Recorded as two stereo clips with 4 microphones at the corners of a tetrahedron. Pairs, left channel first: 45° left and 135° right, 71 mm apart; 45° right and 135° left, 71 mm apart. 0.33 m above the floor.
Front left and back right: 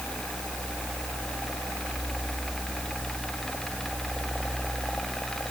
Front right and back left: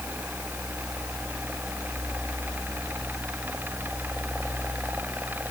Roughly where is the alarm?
No alarm in this recording.